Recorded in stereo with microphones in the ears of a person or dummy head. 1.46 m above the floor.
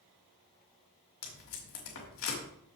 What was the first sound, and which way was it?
Tape being pulled, 80° left.